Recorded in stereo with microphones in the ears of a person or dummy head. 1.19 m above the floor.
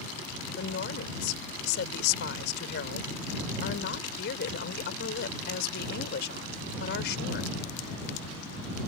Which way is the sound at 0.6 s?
70° left (ahead or behind).